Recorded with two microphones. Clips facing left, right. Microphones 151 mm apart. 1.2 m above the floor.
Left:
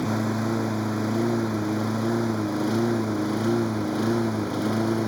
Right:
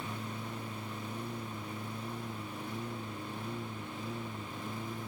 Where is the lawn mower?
85° left; by 5.1 s 80° left.